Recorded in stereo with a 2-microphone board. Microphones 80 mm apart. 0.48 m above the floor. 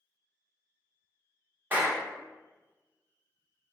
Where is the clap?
25° right (ahead or behind), 0.6 m.